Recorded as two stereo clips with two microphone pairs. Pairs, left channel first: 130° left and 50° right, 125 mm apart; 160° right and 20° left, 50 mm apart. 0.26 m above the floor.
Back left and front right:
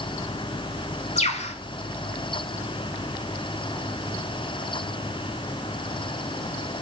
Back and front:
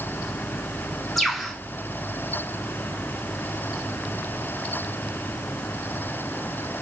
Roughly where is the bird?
Behind left.